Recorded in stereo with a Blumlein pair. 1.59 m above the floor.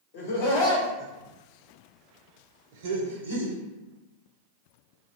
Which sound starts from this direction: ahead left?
Laughter, at 0.1 s.